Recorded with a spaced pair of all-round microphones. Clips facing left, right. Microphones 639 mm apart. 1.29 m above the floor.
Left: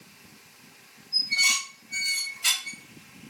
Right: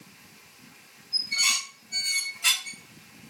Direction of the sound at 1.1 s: 70° right (ahead or behind).